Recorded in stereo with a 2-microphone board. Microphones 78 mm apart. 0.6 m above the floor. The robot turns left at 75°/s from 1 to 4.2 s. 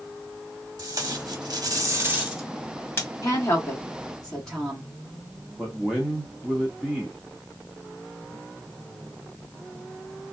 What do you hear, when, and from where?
0.8 s tape being pulled: 50° right (ahead or behind), 1.2 m; by 3.1 s 35° left (ahead or behind), 1.2 m
3.2 s a woman speaking: 55° left (ahead or behind), 1.8 m; by 4.9 s 5° left (ahead or behind), 1.8 m
5.6 s a man speaking: 5° right (ahead or behind), 1.0 m